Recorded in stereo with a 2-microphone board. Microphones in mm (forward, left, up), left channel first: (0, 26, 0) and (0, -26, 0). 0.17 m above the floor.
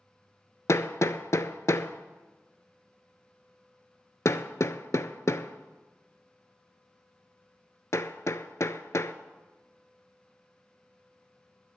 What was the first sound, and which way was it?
Hammering, 65° left (ahead or behind).